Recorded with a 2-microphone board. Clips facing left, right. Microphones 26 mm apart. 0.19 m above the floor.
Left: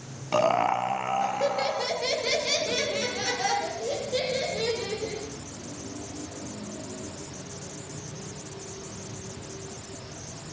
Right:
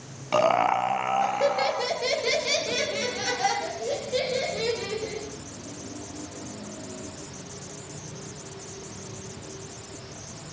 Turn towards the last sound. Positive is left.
turn(degrees=-10)  # may be behind; listen again after turning